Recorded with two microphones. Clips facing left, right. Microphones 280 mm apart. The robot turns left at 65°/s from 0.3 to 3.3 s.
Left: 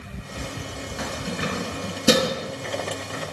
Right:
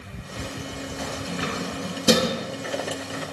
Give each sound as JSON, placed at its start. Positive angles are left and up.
{"t": 1.0, "sound": "keys jangling", "side_deg": 80, "distance_m": 3.5}